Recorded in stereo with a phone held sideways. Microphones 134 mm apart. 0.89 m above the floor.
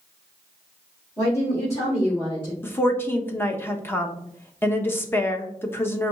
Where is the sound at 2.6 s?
15° left (ahead or behind), 0.7 m.